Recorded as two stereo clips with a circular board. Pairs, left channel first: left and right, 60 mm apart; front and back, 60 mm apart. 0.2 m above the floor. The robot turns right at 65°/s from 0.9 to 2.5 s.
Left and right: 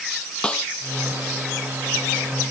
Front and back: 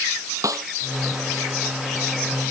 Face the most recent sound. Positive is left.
turn(degrees=-95)